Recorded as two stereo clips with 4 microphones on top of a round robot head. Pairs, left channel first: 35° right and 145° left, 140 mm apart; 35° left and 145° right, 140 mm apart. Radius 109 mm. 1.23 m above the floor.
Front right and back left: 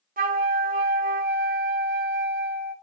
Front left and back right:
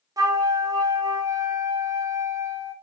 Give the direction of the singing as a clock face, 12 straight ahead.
I don't hear singing.